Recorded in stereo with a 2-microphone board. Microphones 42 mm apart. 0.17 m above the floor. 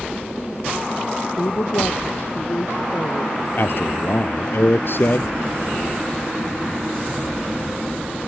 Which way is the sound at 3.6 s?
60° left (ahead or behind).